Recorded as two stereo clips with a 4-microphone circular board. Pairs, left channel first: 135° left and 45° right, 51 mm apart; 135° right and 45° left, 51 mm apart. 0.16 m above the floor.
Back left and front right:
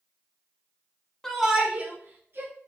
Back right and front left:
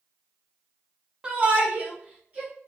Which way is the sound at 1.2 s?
65° left.